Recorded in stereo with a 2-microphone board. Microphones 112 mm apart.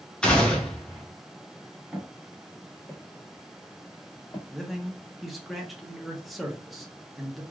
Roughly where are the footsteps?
Centre.